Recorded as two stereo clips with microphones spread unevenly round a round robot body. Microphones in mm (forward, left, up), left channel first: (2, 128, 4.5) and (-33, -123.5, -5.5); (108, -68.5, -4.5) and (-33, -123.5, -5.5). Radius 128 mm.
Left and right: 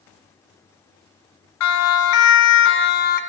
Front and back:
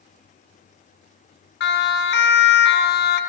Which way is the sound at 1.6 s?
50° left.